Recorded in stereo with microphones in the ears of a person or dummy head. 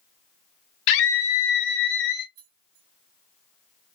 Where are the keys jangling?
45° right (ahead or behind), 0.9 m.